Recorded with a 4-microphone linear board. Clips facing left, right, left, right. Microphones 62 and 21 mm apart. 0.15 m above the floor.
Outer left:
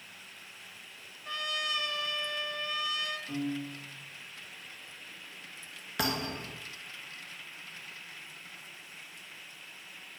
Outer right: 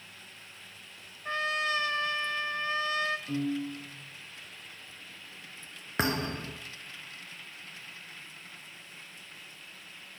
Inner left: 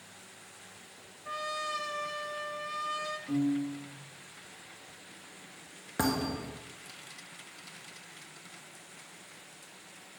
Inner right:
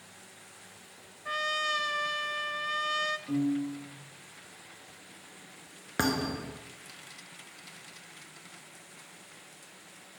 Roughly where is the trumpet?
Right.